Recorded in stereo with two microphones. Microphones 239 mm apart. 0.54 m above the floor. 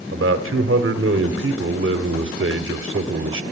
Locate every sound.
0.1 s a man speaking: 60° right (ahead or behind), 1.3 m